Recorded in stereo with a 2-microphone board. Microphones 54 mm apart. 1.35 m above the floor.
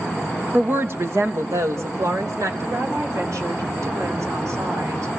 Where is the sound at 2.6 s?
75° right (ahead or behind), 4 m.